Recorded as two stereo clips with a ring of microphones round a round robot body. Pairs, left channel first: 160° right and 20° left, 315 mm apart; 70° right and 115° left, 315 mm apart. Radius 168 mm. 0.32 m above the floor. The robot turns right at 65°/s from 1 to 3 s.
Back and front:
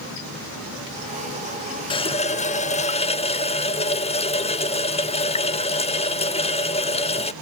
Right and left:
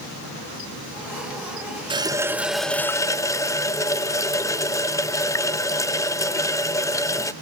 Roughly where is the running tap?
Behind.